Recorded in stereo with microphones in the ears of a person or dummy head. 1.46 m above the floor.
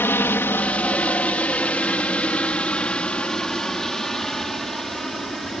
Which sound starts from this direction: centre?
A helicopter, at 0.0 s.